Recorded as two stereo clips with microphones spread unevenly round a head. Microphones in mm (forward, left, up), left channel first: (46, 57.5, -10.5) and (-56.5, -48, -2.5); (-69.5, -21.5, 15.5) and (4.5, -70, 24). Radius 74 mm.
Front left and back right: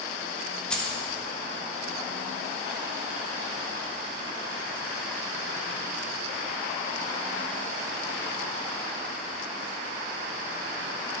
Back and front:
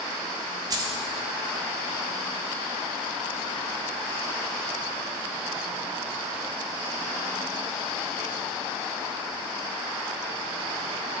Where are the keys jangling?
40° right, 1.2 m.